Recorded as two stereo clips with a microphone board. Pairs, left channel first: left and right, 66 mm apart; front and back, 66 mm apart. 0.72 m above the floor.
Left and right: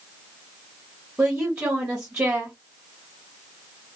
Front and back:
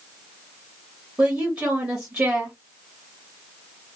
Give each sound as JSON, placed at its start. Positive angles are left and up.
{"t": 1.2, "sound": "a woman speaking", "azimuth_deg": -150, "distance_m": 1.2}